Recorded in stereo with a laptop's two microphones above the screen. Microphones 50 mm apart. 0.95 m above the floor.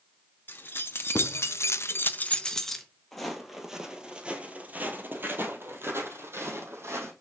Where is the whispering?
No whispering in this recording.